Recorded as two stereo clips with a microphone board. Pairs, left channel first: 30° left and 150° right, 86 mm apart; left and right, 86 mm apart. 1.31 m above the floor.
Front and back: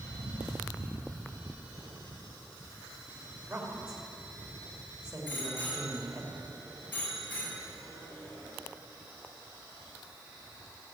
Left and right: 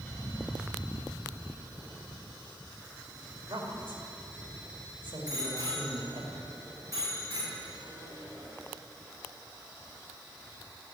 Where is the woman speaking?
75° right, 2.5 m.